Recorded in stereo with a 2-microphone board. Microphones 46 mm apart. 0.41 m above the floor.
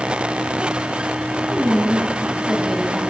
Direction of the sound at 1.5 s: 10° right (ahead or behind).